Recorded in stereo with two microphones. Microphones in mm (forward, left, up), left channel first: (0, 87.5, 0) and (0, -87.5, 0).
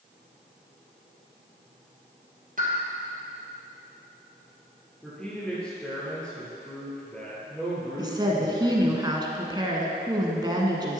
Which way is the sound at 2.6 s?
50° right (ahead or behind).